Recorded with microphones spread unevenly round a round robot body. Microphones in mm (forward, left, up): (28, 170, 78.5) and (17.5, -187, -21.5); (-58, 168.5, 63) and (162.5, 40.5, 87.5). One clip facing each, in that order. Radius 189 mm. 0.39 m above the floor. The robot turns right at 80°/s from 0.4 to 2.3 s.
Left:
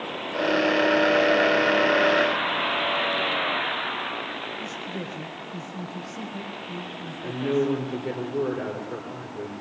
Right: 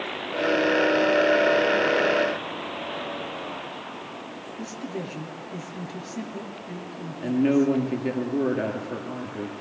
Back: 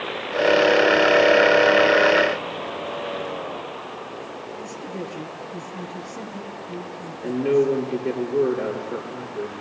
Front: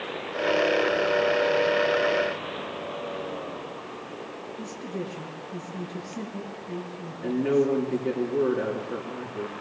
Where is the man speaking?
80° right, 7 m.